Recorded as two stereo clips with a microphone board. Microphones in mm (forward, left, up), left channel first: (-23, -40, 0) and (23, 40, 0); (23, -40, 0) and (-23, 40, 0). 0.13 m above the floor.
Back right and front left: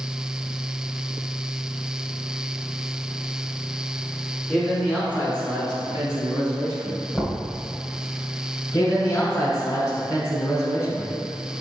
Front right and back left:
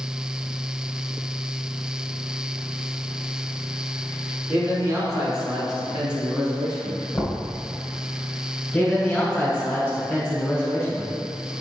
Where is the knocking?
25° right, 1.7 m.